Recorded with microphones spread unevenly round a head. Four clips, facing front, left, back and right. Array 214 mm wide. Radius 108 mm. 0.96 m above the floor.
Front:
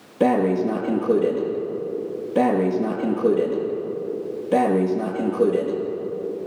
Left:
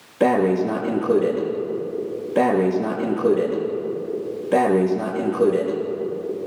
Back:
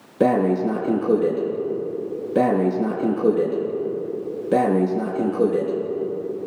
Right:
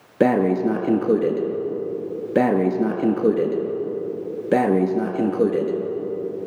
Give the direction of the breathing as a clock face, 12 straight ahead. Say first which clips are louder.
Even, even; 5 o'clock.